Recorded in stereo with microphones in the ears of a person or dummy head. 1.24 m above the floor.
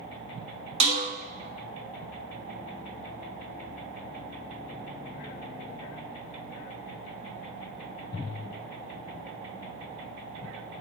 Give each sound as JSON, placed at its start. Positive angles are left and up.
{"t": 0.8, "sound": "a snare drum", "side_deg": -35, "distance_m": 1.2}